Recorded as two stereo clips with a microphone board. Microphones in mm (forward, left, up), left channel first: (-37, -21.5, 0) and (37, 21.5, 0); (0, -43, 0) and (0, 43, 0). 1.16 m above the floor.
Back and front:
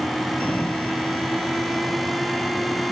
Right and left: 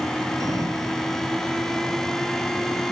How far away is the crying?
I don't hear crying.